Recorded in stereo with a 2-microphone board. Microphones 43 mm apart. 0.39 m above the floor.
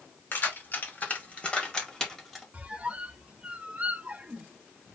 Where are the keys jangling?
55° left (ahead or behind), 2 m; by 2.4 s centre (ahead or behind), 1.6 m.